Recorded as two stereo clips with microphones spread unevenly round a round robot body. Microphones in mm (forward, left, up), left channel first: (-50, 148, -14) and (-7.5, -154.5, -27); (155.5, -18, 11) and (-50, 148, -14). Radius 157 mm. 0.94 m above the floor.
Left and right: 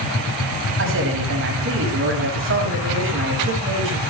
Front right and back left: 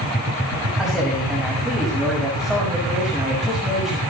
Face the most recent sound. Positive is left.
turn(degrees=-130)